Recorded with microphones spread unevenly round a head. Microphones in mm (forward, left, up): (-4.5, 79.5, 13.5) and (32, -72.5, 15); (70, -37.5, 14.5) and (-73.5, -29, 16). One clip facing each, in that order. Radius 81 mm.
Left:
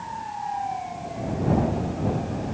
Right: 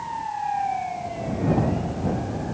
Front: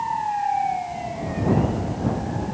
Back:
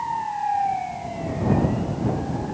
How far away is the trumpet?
No trumpet in this recording.